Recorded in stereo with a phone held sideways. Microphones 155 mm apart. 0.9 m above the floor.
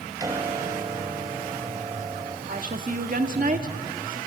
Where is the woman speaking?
55° right (ahead or behind), 1.5 m.